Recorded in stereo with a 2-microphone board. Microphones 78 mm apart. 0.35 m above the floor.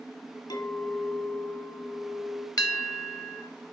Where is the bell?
55° left (ahead or behind), 0.8 m.